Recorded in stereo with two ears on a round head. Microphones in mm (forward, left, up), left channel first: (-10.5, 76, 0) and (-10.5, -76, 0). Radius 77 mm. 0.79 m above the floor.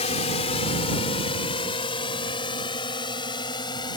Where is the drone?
35° left (ahead or behind); by 4.0 s 25° left (ahead or behind).